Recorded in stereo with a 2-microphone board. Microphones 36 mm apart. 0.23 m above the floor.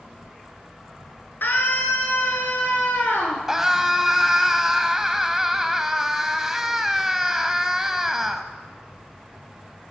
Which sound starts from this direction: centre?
A scream, at 3.5 s.